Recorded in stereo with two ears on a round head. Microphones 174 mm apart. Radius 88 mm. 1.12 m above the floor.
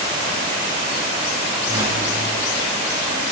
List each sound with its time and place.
1.7 s a whoosh: 15° right (ahead or behind), 6 m